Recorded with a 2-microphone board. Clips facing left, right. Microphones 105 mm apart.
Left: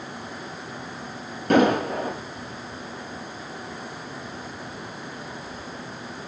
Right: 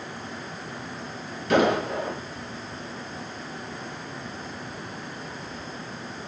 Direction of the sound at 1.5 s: 50° left (ahead or behind).